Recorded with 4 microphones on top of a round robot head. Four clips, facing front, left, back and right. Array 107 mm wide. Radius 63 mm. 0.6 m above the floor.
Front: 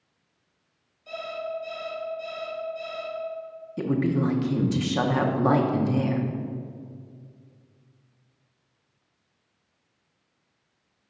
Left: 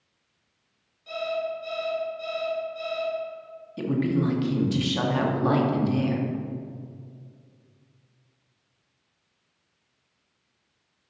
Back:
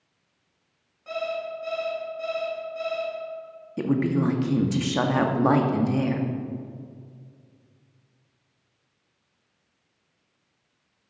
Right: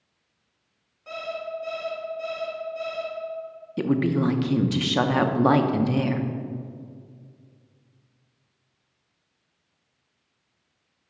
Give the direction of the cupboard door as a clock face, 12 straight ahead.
I don't hear a cupboard door.